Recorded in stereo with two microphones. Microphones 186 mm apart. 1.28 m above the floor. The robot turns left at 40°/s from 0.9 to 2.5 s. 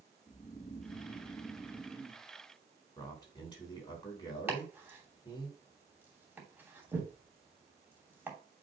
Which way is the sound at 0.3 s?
50° left.